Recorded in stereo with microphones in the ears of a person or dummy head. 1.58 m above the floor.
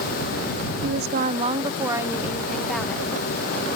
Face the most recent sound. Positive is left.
turn(degrees=5)  # may be behind; listen again after turning